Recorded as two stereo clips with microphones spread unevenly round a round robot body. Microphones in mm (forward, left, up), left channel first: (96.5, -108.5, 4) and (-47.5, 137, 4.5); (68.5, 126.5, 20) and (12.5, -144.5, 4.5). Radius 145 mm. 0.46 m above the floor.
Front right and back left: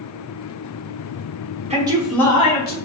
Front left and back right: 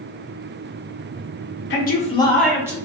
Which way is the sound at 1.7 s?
70° left.